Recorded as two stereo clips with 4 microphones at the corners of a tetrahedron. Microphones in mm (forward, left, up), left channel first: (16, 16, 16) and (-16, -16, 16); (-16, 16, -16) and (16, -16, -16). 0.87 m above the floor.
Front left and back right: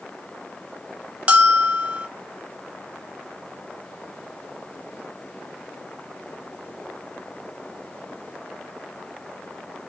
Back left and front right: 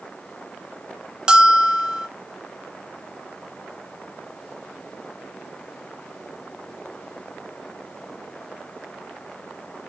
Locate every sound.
1.3 s a bell: 100° right, 1.0 m